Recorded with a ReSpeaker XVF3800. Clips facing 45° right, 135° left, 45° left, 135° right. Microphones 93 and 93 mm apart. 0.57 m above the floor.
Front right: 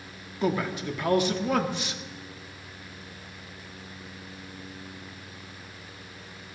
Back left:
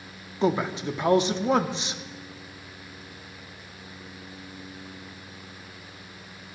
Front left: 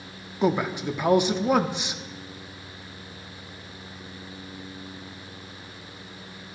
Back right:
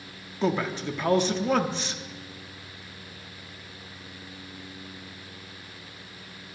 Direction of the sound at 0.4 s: 105° left.